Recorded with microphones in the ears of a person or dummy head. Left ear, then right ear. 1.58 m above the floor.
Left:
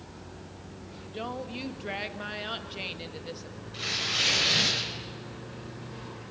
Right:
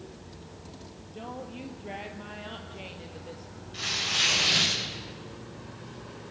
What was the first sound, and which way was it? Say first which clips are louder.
A woman speaking: left 4 dB; 40° left (ahead or behind).